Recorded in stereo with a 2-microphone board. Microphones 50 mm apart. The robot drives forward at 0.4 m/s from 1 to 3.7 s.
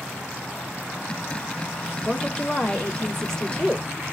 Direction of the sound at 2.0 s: 15° left (ahead or behind).